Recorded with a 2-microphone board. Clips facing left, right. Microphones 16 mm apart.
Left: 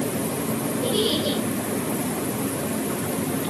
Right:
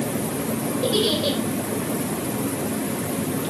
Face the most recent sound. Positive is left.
turn(degrees=-30)  # may be behind; listen again after turning